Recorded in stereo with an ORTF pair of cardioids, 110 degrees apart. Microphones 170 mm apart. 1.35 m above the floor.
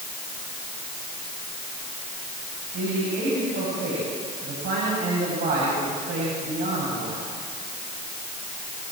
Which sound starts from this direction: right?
A man speaking, at 2.7 s.